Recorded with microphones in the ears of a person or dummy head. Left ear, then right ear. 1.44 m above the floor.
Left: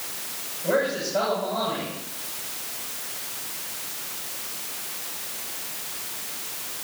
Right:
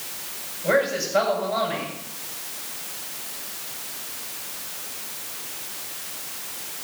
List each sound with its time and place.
0.6 s a man speaking: 50° right (ahead or behind), 7 m